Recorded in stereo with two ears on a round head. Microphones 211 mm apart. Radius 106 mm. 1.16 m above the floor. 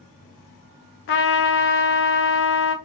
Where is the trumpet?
50° left (ahead or behind), 0.7 m.